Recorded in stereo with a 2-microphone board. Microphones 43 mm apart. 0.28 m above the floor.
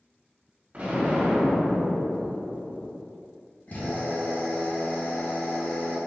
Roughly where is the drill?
Left.